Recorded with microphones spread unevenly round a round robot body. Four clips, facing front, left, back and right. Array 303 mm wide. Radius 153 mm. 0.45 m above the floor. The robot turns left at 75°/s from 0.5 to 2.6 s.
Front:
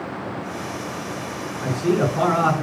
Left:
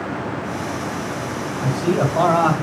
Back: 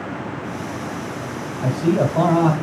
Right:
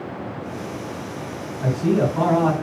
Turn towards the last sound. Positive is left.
turn(degrees=140)